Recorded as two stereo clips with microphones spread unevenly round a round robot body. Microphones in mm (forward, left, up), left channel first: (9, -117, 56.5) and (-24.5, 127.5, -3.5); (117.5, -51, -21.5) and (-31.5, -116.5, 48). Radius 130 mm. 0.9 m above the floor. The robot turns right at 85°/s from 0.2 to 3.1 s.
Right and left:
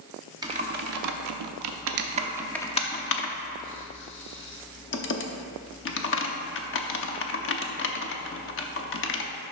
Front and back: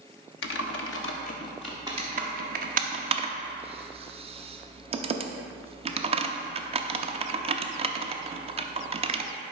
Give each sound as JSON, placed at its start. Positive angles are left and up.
{"t": 0.4, "sound": "typing on a keyboard", "azimuth_deg": 15, "distance_m": 0.7}